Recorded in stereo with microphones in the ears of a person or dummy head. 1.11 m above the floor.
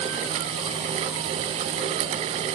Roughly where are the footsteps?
I don't hear footsteps.